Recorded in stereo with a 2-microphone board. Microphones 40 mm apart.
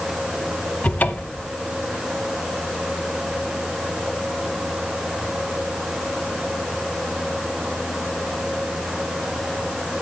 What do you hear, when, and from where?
0.8 s a cupboard door: 40° left (ahead or behind), 0.6 m